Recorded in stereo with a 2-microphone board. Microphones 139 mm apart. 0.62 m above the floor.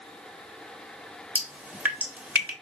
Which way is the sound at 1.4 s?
10° right (ahead or behind).